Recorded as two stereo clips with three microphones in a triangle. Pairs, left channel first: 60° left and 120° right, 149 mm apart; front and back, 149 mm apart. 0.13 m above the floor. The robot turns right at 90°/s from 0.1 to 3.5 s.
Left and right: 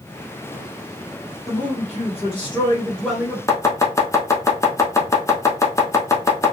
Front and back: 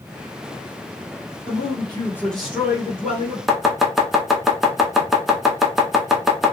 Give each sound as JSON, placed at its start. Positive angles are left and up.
{"t": 1.5, "sound": "a man speaking", "azimuth_deg": 5, "distance_m": 1.5}
{"t": 3.5, "sound": "chopping", "azimuth_deg": 95, "distance_m": 0.6}